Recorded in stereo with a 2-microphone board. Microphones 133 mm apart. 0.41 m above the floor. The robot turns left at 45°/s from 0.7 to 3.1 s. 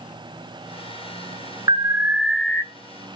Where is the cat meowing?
I don't hear a cat meowing.